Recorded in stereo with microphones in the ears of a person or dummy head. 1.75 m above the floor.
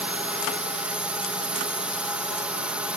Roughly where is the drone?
Centre.